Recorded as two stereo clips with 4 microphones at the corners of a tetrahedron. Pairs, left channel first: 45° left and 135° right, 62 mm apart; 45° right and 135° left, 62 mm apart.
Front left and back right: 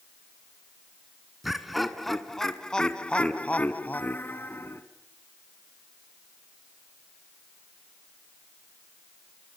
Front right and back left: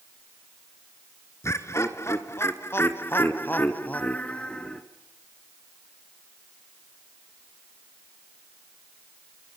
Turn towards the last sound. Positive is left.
turn(degrees=25)